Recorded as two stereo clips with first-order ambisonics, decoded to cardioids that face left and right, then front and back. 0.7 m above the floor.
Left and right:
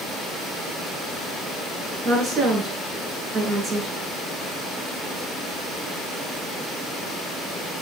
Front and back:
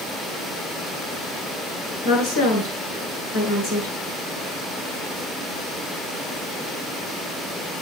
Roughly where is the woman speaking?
Ahead right.